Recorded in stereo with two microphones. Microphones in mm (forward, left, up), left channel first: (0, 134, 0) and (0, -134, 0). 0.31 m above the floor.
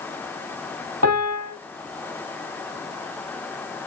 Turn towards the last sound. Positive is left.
turn(degrees=-70)  # may be behind; listen again after turning